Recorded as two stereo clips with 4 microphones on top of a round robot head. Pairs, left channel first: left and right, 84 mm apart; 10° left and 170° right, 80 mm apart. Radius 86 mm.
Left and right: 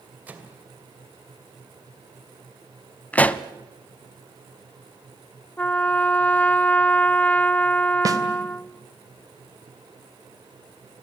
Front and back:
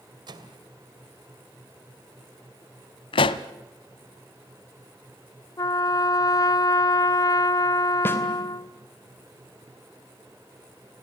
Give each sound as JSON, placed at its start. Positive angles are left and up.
{"t": 0.3, "sound": "a microwave", "azimuth_deg": -160, "distance_m": 2.5}
{"t": 3.1, "sound": "a pop", "azimuth_deg": 15, "distance_m": 0.7}
{"t": 5.6, "sound": "a trumpet", "azimuth_deg": 20, "distance_m": 0.7}
{"t": 8.1, "sound": "a snare drum", "azimuth_deg": -50, "distance_m": 3.0}